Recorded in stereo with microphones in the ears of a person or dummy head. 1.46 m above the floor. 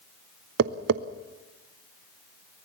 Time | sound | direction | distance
0.6 | tapping | 50° right (ahead or behind) | 0.7 m